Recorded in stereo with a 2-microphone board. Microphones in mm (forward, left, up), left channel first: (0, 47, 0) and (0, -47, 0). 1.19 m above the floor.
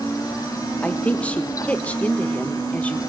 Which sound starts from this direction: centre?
A woman speaking, at 0.8 s.